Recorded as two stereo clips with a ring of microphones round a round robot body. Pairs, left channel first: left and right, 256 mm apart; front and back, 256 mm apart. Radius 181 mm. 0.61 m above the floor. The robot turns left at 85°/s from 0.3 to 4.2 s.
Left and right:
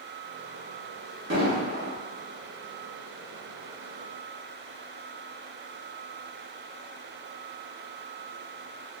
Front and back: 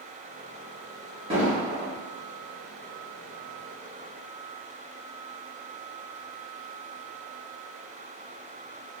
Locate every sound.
1.3 s an explosion: 115° right, 0.7 m; by 1.9 s 170° right, 0.7 m